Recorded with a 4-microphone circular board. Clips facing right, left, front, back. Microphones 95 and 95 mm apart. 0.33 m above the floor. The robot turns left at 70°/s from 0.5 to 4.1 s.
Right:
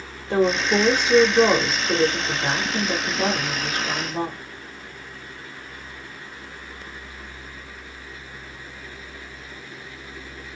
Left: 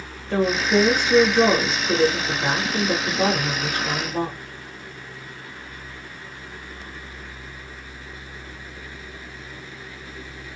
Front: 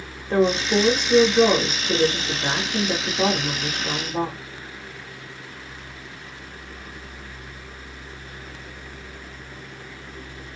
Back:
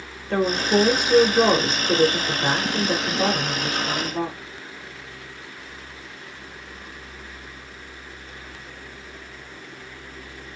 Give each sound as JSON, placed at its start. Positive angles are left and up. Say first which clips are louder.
{"t": 0.3, "sound": "a woman speaking", "louder": "even, front 1 dB", "azimuth_deg": -80, "distance_m": 1.0}